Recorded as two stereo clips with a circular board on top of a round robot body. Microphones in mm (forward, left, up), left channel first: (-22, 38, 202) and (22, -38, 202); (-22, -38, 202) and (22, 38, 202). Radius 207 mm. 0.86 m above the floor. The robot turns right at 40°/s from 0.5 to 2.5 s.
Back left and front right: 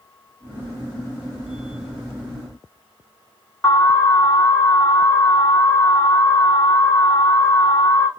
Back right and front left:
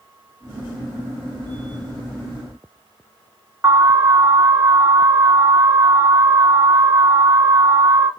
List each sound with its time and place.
3.6 s an alarm: 85° left, 1.3 m